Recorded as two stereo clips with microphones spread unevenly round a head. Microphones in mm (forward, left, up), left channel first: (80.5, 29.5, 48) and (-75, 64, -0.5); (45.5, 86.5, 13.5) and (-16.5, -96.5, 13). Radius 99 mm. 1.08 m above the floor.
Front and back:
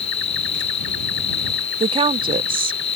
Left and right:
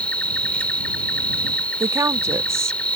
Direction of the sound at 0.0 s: 10° right.